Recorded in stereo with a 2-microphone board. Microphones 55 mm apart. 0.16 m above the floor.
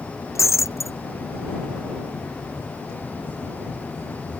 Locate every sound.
0.3 s breaking glass: 65° left (ahead or behind)